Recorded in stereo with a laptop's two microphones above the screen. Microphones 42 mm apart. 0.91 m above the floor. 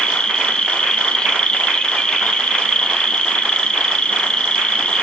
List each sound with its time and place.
0.0 s an insect: 25° left (ahead or behind), 1.9 m